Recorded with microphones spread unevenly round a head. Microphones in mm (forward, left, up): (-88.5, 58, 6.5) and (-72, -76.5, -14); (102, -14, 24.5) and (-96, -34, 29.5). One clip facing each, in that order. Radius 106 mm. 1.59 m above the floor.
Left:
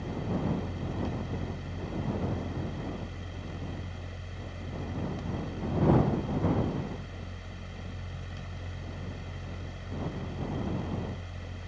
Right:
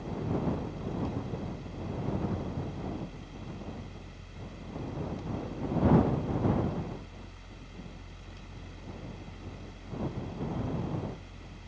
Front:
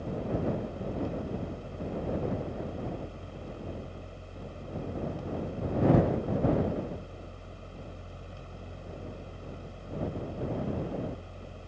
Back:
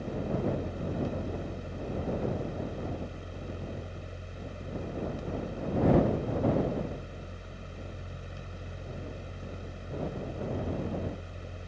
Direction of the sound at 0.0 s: 115° left.